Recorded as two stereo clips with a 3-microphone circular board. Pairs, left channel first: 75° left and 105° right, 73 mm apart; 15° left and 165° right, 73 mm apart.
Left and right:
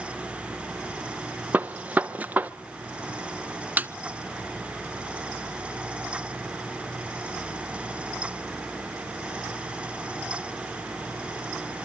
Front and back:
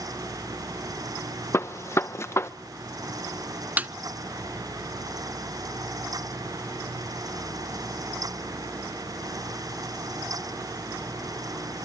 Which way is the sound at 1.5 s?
35° right.